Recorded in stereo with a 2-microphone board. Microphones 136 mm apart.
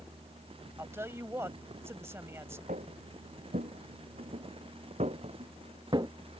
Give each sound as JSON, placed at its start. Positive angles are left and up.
{"t": 0.8, "sound": "a woman speaking", "side_deg": -20}
{"t": 2.7, "sound": "footsteps", "side_deg": -80}